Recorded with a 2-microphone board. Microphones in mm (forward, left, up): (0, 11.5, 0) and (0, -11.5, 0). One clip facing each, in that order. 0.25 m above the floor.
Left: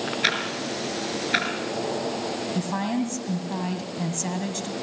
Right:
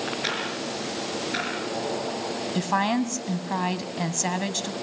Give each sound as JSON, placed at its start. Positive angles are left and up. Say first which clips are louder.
{"t": 0.2, "sound": "ticking", "louder": "left 3 dB", "side_deg": 35, "distance_m": 5.0}
{"t": 2.5, "sound": "a woman speaking", "louder": "right 5 dB", "side_deg": -35, "distance_m": 1.9}